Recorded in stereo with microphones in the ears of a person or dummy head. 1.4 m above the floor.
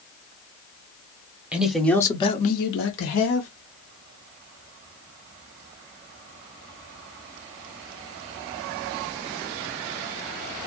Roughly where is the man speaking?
Centre.